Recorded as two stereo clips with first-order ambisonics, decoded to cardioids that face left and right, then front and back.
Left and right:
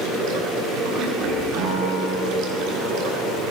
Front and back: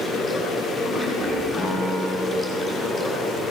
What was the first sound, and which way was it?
Running water, 100° right.